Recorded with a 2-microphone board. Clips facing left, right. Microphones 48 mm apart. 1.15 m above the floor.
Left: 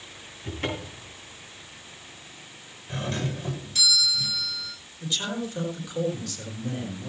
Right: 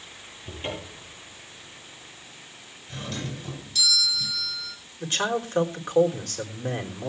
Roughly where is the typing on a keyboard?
I don't hear typing on a keyboard.